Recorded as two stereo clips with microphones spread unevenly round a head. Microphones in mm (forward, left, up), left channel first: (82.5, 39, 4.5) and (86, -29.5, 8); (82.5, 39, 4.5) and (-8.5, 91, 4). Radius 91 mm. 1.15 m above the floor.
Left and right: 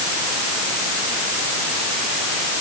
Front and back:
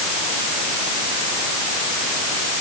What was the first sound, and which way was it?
Only background noise.